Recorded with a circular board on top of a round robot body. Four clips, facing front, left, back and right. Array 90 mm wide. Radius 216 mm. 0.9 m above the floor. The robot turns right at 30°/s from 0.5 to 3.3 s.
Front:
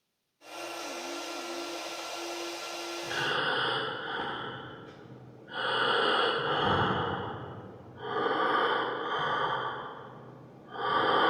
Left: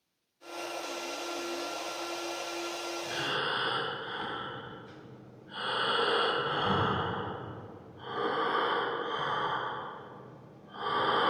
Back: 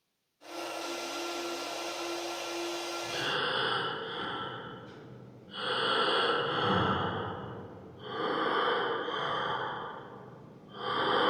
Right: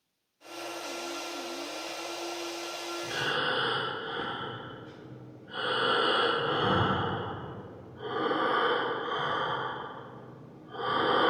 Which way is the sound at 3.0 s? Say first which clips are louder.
Right 4 dB, front 4 dB; 75° right.